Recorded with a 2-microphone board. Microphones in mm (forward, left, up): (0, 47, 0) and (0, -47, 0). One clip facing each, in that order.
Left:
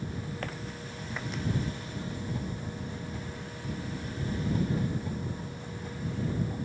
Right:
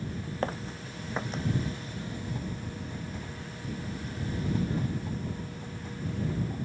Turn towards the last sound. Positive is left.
turn(degrees=-35)  # may be behind; listen again after turning